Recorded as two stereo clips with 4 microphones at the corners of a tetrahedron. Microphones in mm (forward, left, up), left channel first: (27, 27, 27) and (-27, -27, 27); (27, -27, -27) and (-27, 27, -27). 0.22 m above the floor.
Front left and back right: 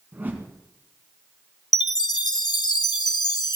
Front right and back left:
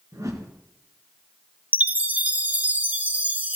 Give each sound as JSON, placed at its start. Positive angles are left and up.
{"t": 0.1, "sound": "a whoosh", "azimuth_deg": 165, "distance_m": 1.4}
{"t": 1.7, "sound": "a chime", "azimuth_deg": 65, "distance_m": 0.7}